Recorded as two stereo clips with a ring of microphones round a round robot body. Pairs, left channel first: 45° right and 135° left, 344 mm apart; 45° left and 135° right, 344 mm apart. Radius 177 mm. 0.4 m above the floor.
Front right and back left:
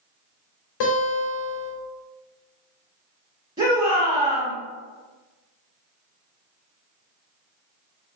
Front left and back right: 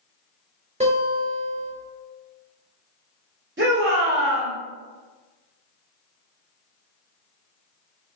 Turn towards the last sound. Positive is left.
turn(degrees=-160)